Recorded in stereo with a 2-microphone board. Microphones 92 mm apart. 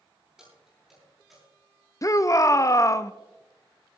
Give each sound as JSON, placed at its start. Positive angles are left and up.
{"t": 0.4, "sound": "keys jangling", "side_deg": -5, "distance_m": 8.0}
{"t": 2.0, "sound": "a shout", "side_deg": 35, "distance_m": 0.5}